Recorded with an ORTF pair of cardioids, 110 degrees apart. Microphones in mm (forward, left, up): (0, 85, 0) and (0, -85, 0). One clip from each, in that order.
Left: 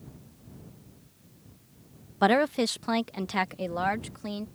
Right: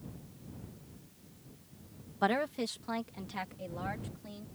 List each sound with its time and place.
2.2 s a woman speaking: 45° left; by 4.5 s 75° left